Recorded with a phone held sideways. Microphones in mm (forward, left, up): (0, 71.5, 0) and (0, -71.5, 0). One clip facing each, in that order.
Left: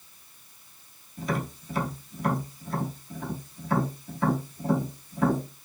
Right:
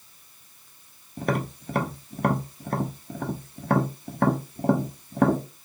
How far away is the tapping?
About 0.9 m.